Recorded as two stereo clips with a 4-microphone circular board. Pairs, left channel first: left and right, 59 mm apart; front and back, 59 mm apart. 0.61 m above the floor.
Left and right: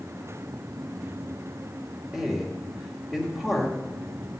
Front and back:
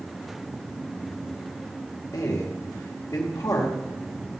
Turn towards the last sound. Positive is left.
turn(degrees=-10)